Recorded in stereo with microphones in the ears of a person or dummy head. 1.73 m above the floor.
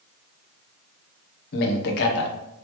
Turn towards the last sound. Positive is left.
turn(degrees=60)  # may be behind; listen again after turning